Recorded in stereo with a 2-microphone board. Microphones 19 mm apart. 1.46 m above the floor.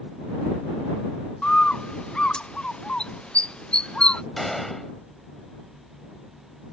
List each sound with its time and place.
1.4 s a bird: 70° left (ahead or behind)
4.4 s a gunshot: 15° left (ahead or behind)